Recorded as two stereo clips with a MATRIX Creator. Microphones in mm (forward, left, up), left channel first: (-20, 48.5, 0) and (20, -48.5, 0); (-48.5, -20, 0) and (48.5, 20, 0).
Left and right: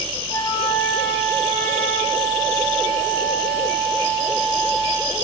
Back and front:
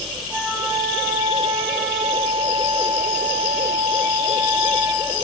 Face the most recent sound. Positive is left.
turn(degrees=95)